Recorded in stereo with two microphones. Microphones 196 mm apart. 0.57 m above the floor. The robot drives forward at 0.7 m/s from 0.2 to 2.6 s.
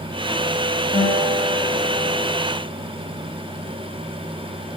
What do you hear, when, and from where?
0.9 s a guitar: 30° right (ahead or behind), 3 m; by 2.4 s 40° right (ahead or behind), 2.5 m